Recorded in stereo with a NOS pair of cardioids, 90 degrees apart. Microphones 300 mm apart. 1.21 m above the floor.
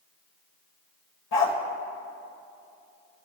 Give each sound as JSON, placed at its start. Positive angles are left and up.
{"t": 1.3, "sound": "a dog barking", "azimuth_deg": 65, "distance_m": 2.0}